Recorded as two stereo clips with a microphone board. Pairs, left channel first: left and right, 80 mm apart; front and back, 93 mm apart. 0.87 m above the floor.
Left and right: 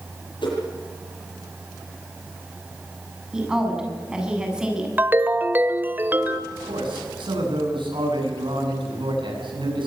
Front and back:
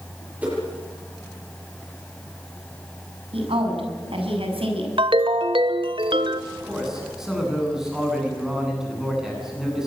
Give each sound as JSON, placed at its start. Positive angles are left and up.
{"t": 0.4, "sound": "a whoosh", "azimuth_deg": 105, "distance_m": 9.5}
{"t": 3.3, "sound": "a woman speaking", "azimuth_deg": -170, "distance_m": 7.5}
{"t": 5.0, "sound": "a ringtone", "azimuth_deg": -155, "distance_m": 1.5}
{"t": 6.5, "sound": "a man speaking", "azimuth_deg": -95, "distance_m": 9.5}